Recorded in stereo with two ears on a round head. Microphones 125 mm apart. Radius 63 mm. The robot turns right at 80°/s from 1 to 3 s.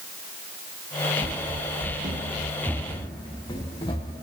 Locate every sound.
1.2 s running footsteps: 35° right (ahead or behind), 1.3 m; by 4.1 s 30° left (ahead or behind), 3.5 m